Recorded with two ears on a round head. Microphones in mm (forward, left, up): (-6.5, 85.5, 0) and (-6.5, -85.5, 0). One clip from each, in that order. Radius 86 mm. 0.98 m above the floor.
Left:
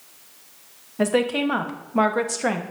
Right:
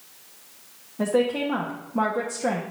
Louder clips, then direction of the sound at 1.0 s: Left 2 dB; 65° left (ahead or behind).